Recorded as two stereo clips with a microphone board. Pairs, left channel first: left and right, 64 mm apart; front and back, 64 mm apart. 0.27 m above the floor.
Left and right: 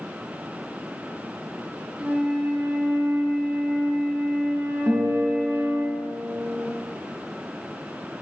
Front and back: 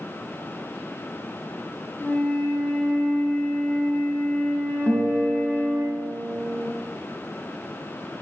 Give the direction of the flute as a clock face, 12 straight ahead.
1 o'clock.